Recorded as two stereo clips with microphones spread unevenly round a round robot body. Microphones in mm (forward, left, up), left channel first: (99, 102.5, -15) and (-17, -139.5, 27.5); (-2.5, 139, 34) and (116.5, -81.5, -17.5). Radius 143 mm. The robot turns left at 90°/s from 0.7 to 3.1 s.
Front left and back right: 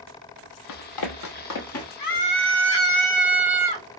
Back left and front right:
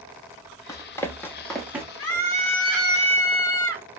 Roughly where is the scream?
Left.